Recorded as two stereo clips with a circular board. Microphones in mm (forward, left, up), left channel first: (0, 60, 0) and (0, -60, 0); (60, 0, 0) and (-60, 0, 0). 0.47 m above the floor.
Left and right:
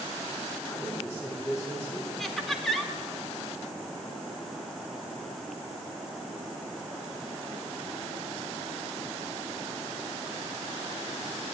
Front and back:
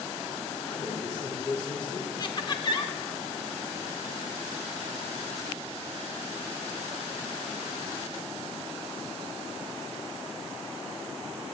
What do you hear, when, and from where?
0.7 s a man speaking: 35° left, 1.2 m
2.2 s laughter: 5° left, 0.9 m